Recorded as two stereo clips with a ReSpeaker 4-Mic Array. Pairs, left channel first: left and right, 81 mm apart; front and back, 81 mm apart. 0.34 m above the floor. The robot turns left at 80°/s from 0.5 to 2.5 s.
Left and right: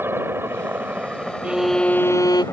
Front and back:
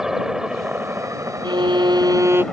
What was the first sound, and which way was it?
A helicopter, 100° right.